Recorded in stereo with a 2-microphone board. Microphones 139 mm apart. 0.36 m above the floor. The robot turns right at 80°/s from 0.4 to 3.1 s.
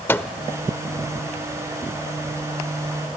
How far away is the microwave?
About 0.6 m.